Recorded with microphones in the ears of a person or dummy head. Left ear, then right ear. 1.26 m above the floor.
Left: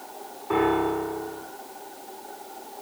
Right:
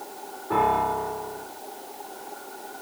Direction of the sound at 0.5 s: 70° left (ahead or behind).